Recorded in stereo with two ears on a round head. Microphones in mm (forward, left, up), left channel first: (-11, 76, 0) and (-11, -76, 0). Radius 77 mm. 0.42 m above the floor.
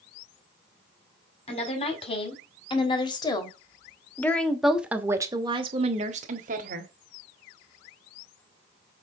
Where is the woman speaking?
40° left (ahead or behind), 2.5 m; by 6.9 s 50° right (ahead or behind), 1.4 m.